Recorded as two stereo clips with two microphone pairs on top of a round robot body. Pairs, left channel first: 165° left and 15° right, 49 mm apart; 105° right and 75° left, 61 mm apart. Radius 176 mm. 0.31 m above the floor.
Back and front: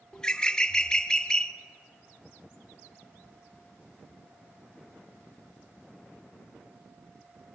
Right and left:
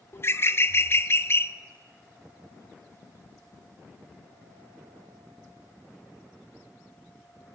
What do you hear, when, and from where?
0.1 s a bird: 130° right, 1.1 m